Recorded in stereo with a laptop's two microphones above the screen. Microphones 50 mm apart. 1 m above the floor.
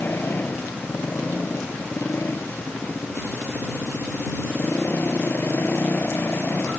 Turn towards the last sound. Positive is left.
turn(degrees=40)  # may be behind; listen again after turning